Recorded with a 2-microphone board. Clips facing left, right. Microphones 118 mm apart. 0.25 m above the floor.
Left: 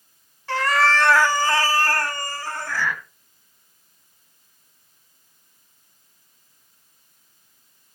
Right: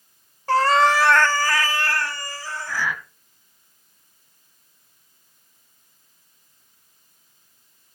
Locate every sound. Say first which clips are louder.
0.5 s a cat meowing: right 4 dB; 40° right (ahead or behind), 0.8 m; by 2.9 s 60° left (ahead or behind), 2.0 m
2.7 s breathing: even; 5° right (ahead or behind), 1.5 m